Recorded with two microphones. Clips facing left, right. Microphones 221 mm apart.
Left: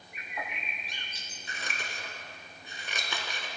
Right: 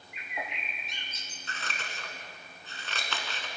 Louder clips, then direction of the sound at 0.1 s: Right 1 dB; 20° right (ahead or behind).